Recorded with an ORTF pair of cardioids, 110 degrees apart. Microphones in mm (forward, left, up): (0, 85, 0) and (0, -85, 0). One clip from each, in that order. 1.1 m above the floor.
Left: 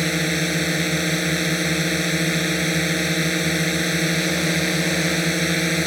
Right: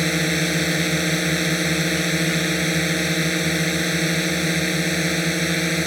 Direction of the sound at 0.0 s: 5° right.